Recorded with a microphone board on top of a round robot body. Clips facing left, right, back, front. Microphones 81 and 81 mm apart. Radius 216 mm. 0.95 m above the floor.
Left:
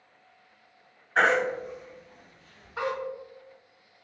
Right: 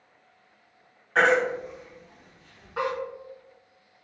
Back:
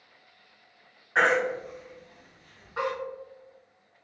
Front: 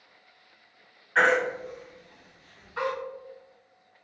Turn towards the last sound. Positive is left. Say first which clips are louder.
# right 2 dB, front 1 dB
turn(degrees=-110)